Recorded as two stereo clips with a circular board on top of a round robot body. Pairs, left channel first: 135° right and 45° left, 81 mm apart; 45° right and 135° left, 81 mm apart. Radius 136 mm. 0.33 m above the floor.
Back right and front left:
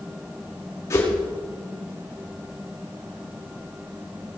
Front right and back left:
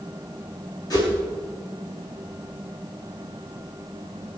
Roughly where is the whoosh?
Right.